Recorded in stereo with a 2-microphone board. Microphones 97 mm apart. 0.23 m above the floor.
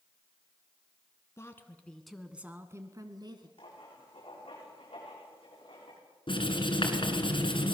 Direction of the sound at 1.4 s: 30° left (ahead or behind).